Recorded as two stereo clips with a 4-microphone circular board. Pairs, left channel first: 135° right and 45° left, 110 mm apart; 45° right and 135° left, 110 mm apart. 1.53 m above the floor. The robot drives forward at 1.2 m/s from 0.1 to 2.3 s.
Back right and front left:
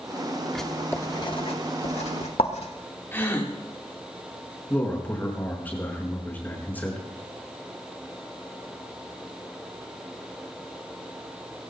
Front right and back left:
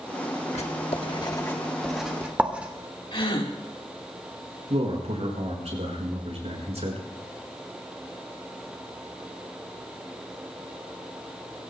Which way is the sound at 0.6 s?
45° right.